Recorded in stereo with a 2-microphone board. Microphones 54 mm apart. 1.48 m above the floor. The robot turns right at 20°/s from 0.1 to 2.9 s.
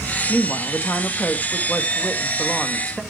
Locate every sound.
0.3 s a woman speaking: 120° left, 1.7 m; by 3.0 s 170° left, 1.7 m